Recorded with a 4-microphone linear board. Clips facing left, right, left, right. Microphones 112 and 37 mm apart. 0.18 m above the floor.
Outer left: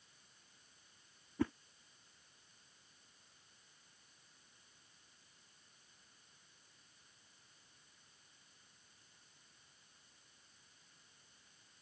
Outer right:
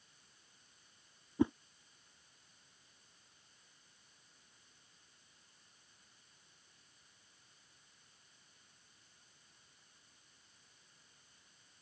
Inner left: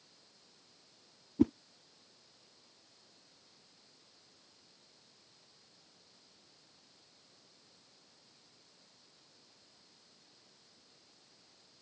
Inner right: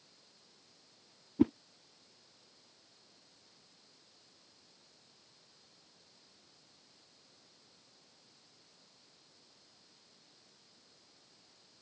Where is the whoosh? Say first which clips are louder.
Outer right 5 dB, even; 20° right (ahead or behind).